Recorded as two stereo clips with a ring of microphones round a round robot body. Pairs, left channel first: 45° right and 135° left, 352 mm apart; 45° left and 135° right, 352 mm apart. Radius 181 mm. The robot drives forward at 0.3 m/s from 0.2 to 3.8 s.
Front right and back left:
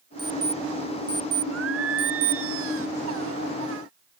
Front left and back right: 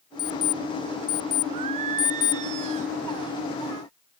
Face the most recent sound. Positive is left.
turn(degrees=-170)